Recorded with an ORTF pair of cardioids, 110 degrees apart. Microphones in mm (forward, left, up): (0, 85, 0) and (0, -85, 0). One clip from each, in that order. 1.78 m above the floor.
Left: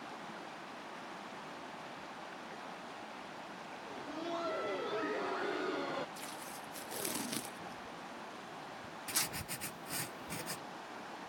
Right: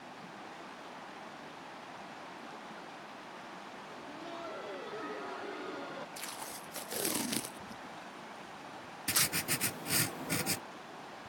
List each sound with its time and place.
3.9 s laughter: 30° left
6.2 s tape being pulled: 25° right
9.1 s writing: 55° right